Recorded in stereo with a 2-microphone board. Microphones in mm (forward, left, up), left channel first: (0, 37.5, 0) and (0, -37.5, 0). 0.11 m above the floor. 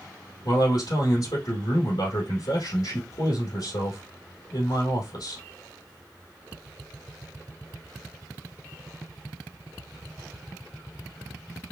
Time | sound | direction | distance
0.5 | a man speaking | 65° left (ahead or behind) | 3 m